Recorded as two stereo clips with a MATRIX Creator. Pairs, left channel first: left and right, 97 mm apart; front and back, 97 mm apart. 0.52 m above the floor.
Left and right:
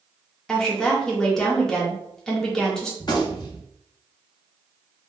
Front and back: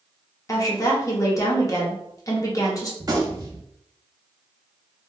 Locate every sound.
0.5 s a woman speaking: 10° left, 1.0 m
3.0 s a gunshot: 130° left, 0.7 m